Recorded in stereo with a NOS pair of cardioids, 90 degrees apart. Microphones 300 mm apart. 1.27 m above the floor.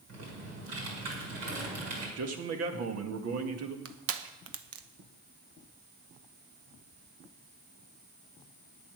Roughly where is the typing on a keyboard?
Ahead right.